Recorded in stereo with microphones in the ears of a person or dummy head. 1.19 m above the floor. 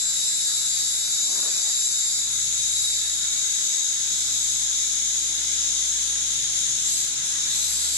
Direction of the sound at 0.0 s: 10° left (ahead or behind).